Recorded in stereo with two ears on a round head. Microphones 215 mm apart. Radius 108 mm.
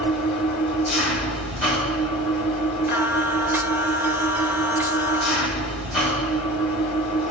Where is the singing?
10° right (ahead or behind), 0.7 m.